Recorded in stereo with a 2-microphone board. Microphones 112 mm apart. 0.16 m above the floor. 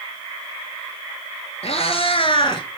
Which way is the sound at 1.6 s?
65° left (ahead or behind).